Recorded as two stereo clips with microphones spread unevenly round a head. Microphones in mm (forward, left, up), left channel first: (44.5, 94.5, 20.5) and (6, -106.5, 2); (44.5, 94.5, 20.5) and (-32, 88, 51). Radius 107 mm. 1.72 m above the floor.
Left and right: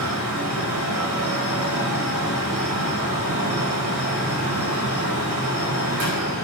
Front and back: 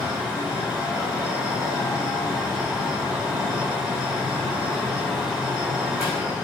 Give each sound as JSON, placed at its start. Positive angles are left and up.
{"t": 0.0, "sound": "a fan", "azimuth_deg": -80, "distance_m": 4.0}